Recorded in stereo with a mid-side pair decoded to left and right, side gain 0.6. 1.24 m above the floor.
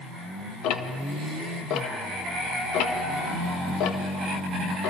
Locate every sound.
0.6 s ticking: 65° left, 1.4 m